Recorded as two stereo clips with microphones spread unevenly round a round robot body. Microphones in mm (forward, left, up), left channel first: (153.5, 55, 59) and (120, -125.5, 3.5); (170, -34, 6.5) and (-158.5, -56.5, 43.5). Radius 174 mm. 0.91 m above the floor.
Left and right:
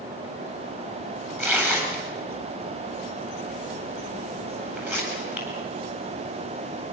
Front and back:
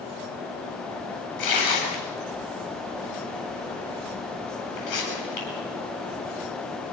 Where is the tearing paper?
20° right, 9 m.